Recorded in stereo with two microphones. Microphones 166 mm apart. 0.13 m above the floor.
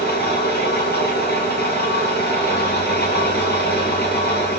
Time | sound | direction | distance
0.0 | an engine running | 80° left | 5.5 m